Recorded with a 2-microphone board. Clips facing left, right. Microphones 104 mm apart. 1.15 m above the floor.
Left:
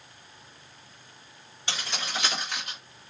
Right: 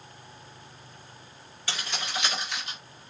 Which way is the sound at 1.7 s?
25° left (ahead or behind).